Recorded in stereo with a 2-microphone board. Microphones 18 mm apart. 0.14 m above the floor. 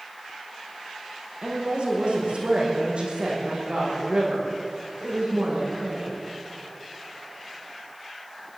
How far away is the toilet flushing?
No toilet flushing in this recording.